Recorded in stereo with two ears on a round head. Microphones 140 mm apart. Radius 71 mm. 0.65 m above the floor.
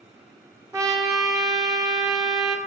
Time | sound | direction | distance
0.7 | a trumpet | 20° right (ahead or behind) | 0.7 m